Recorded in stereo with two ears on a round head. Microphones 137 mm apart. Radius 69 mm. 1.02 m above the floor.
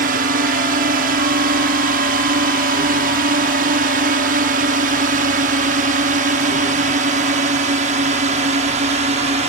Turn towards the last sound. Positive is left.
turn(degrees=-45)  # may be behind; listen again after turning